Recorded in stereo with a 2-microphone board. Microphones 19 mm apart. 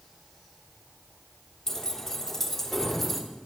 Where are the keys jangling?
25° left (ahead or behind), 3 m; by 3.2 s 5° left (ahead or behind), 4 m.